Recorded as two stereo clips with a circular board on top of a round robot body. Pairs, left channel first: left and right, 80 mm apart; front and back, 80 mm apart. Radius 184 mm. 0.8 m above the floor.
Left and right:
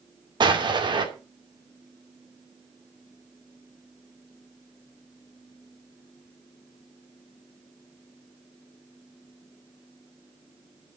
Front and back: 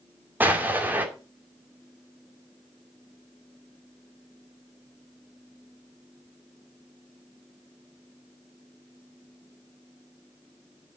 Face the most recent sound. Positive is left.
turn(degrees=-110)